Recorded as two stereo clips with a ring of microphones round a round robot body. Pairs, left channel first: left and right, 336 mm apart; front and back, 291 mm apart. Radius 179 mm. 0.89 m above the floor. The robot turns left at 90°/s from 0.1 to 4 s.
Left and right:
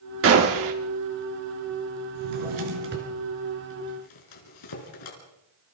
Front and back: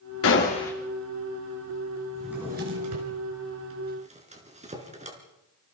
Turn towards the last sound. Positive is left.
turn(degrees=115)